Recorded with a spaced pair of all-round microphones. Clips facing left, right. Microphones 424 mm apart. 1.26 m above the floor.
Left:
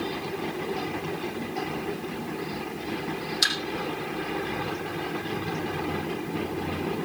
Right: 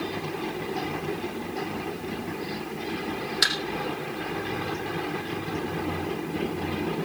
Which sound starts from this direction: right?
A thud, at 3.4 s.